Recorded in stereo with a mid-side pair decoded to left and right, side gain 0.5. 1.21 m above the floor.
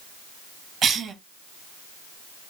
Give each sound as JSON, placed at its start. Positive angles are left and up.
{"t": 0.8, "sound": "a cough", "azimuth_deg": -50, "distance_m": 1.1}